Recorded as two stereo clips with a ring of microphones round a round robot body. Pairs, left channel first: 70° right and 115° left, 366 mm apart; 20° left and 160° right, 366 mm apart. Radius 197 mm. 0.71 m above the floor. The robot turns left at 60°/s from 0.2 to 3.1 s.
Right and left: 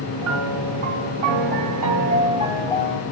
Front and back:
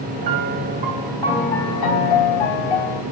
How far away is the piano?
About 2 m.